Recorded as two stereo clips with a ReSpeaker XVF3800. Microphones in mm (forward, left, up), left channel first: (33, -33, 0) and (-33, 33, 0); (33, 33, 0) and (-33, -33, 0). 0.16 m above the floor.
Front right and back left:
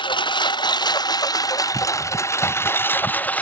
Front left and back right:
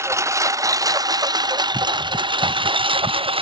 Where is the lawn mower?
75° right; by 3.4 s 120° right.